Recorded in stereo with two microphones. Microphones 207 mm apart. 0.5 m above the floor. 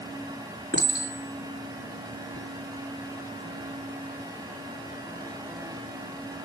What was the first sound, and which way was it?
A clink, 55° right (ahead or behind).